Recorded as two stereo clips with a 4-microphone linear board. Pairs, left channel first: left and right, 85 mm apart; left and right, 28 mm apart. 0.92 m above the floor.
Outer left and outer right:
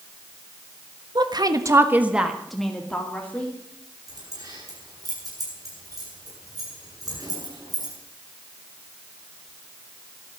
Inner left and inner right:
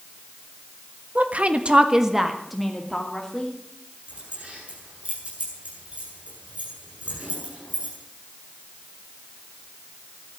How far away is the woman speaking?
About 1.5 m.